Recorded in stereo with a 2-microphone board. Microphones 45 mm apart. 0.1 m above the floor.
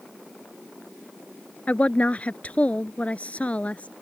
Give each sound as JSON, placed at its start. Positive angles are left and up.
{"t": 1.7, "sound": "a woman speaking", "side_deg": 30}